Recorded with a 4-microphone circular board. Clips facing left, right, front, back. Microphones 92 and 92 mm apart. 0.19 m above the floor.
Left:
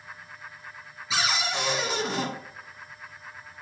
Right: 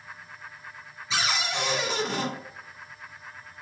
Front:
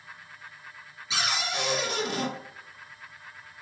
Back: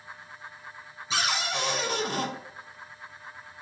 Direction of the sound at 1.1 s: 170° left.